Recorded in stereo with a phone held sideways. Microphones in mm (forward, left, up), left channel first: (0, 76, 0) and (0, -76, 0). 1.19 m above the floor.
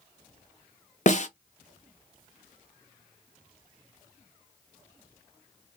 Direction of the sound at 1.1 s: 50° left (ahead or behind).